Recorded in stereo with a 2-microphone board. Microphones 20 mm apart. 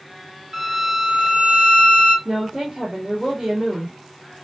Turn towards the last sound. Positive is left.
turn(degrees=-40)  # may be behind; listen again after turning